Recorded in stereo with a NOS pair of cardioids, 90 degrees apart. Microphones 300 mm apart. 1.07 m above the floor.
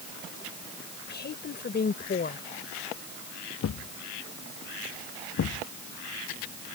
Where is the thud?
55° left.